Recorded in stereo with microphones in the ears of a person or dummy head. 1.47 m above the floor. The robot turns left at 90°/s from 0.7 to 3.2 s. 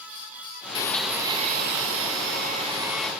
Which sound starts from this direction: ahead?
A blender, at 0.8 s.